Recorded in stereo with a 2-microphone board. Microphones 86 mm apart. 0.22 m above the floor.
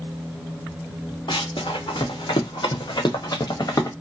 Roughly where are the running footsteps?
Left.